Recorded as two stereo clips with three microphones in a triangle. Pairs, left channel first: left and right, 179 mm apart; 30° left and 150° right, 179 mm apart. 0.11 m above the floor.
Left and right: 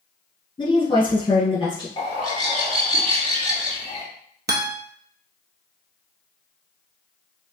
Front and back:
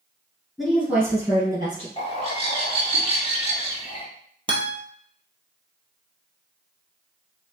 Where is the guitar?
90° right, 0.7 m.